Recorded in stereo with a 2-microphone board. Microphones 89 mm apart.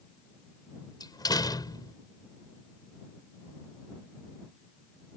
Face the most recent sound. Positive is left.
turn(degrees=45)  # may be behind; listen again after turning